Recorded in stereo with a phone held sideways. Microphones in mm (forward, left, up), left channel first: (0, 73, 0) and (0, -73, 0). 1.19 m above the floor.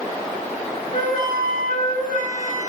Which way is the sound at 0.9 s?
65° left (ahead or behind).